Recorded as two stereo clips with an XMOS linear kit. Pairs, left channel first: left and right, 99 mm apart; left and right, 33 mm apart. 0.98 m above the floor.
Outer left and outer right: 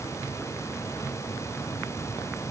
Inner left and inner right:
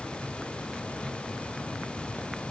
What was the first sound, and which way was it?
Only background noise.